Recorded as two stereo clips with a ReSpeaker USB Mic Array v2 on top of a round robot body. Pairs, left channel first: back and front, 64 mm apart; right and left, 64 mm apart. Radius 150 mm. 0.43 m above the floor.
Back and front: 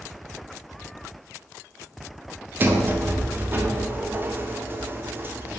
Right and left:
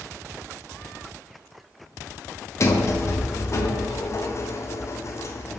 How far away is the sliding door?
About 0.5 m.